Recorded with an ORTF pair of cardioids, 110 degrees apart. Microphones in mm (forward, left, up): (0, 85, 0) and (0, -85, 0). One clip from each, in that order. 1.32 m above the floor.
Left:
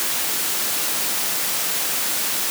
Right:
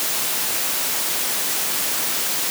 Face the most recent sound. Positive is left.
No sound to turn to.